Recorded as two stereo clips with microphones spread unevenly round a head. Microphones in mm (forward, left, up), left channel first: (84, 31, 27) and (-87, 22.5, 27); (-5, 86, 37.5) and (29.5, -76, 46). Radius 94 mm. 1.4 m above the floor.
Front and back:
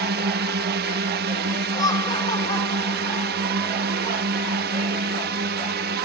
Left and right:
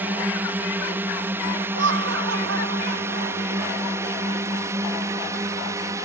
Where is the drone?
160° right; by 6.0 s 150° right.